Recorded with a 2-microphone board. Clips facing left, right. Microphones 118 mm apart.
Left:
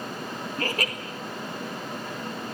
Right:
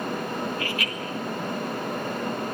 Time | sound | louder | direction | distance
0.6 | laughter | left 1 dB | 40° left (ahead or behind) | 1.8 m